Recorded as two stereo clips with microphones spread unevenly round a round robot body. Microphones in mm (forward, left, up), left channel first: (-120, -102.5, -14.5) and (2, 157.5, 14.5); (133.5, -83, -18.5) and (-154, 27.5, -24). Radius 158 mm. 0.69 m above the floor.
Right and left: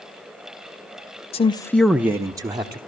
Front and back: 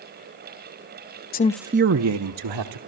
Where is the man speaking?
65° right, 0.6 m; by 2.8 s 145° left, 1.5 m.